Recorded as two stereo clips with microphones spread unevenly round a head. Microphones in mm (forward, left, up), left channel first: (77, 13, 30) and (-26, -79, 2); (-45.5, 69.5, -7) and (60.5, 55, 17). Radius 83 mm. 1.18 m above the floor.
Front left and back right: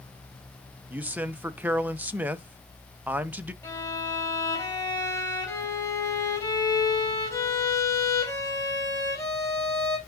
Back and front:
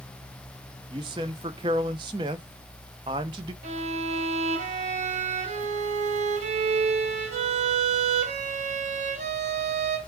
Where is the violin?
25° right, 3.5 m.